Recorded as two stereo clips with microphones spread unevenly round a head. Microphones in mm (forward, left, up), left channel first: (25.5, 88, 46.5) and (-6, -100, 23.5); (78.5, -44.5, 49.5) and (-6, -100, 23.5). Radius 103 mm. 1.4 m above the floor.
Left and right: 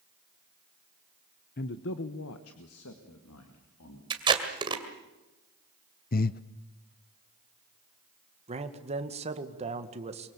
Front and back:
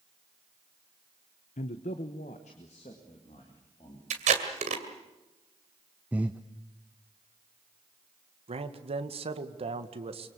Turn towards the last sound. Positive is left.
turn(degrees=-155)